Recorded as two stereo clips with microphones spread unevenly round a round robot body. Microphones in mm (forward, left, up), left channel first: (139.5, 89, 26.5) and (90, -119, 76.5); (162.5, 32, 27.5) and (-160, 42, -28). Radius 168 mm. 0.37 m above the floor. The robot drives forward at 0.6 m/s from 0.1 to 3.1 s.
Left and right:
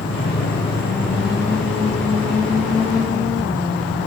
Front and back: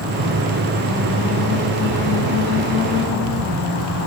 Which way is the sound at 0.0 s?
125° left.